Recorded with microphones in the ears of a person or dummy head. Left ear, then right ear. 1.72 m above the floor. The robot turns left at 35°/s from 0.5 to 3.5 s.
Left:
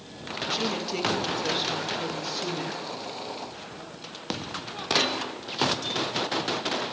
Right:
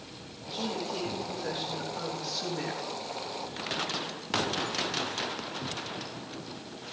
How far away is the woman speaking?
About 3.5 m.